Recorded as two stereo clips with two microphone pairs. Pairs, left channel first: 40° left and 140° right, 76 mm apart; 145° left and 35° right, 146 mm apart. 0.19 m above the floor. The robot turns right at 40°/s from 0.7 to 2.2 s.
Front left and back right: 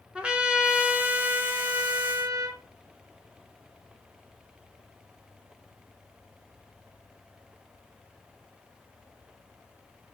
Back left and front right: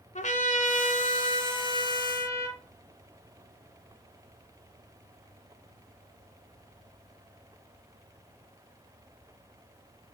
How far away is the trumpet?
About 1.9 m.